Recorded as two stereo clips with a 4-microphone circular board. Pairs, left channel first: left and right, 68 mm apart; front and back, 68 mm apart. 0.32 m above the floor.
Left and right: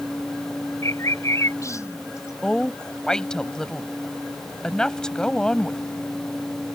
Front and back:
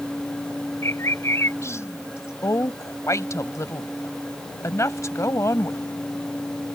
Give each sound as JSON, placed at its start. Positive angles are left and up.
{"t": 0.8, "sound": "a bird", "azimuth_deg": 50}
{"t": 2.4, "sound": "a woman speaking", "azimuth_deg": 15}